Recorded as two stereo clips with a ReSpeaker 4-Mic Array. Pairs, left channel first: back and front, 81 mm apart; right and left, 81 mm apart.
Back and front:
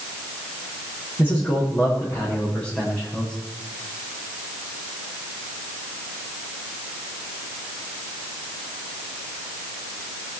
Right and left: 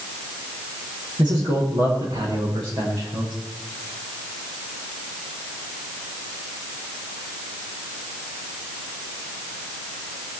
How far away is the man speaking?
About 7.5 m.